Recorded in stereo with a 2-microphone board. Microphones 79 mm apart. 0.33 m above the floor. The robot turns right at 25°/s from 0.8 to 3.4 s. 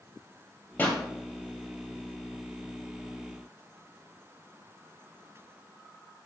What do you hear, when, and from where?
0.8 s a pop: 20° left (ahead or behind), 1.9 m; by 1.0 s 15° left (ahead or behind), 1.9 m